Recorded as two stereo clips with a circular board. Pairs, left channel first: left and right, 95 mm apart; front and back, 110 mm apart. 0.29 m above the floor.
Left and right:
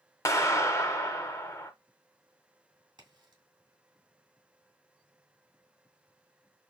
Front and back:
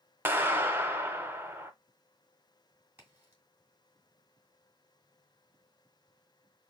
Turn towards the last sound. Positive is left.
turn(degrees=-110)